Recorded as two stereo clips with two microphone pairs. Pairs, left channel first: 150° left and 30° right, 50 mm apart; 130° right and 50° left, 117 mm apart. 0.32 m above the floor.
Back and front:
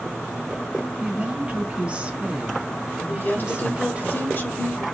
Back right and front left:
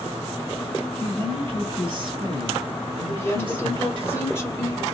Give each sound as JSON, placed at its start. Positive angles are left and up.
{"t": 1.0, "sound": "a woman speaking", "azimuth_deg": 35, "distance_m": 2.0}
{"t": 3.1, "sound": "a woman speaking", "azimuth_deg": 175, "distance_m": 1.8}